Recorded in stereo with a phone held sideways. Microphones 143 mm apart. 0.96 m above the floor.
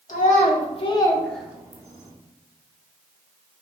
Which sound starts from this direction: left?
A child speaking, at 0.1 s.